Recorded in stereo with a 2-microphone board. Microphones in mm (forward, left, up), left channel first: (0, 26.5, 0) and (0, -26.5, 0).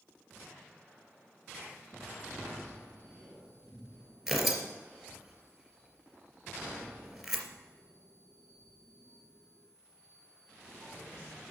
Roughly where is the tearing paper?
Centre.